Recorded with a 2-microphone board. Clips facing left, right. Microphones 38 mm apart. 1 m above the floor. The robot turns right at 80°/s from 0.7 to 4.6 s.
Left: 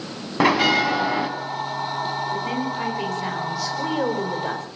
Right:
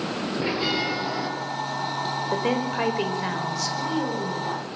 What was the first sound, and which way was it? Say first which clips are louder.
A bell: left 10 dB; 105° left.